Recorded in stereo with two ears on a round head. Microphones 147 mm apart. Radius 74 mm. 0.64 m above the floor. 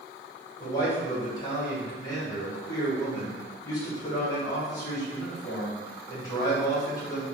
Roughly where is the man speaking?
Left.